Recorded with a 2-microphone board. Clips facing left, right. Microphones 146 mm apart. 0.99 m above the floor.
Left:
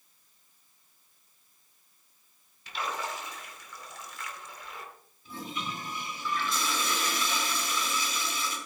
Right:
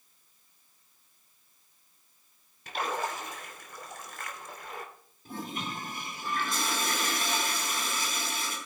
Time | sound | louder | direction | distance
2.7 | a splash | right 3 dB | 50° right (ahead or behind) | 2.5 m
5.2 | a toilet flushing | right 1 dB | 50° right (ahead or behind) | 5 m